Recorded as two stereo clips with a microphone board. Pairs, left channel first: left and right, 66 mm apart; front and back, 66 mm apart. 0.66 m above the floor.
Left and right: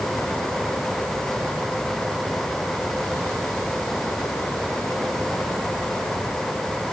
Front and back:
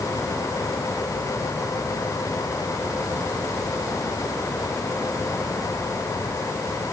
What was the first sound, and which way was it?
Only background noise.